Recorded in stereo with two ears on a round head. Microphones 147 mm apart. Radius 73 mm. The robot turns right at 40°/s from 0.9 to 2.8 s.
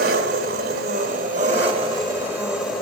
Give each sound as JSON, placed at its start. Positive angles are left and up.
{"t": 0.0, "sound": "an engine running", "azimuth_deg": -70, "distance_m": 2.0}